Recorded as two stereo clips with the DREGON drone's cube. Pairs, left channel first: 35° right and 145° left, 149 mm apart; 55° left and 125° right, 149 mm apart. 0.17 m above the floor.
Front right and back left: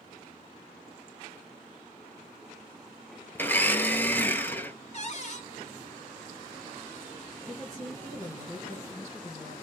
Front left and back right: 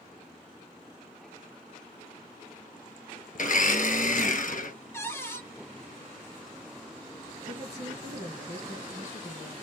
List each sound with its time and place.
3.4 s a blender: 40° left, 0.8 m
4.9 s a cupboard door: 15° right, 1.3 m
7.5 s a woman speaking: 75° right, 2 m